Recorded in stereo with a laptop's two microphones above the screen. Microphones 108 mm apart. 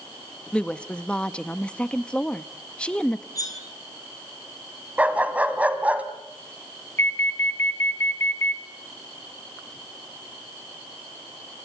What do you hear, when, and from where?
0.5 s a woman speaking: 10° left (ahead or behind), 1.2 m
3.4 s cutlery clinking: 35° left (ahead or behind), 4.5 m
5.0 s a dog barking: 15° right (ahead or behind), 1.5 m
7.0 s an alarm: 25° left (ahead or behind), 2 m